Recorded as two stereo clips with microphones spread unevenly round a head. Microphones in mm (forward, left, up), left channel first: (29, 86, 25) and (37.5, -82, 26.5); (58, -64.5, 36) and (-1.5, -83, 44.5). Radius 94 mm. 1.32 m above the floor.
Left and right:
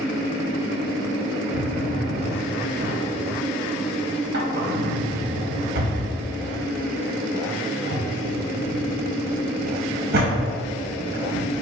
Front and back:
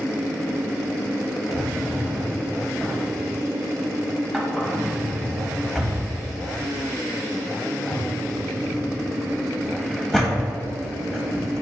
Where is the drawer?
70° right, 0.9 m.